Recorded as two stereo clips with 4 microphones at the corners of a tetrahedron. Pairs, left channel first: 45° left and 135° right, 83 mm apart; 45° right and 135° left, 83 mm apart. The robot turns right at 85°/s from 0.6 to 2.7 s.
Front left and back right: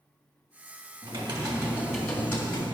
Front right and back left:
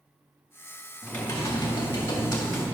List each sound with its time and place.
1.0 s typing on a keyboard: 125° right, 2 m; by 2.6 s 10° left, 2 m